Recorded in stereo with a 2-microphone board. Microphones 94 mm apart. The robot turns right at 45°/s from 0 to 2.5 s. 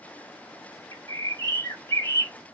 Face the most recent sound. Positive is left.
turn(degrees=155)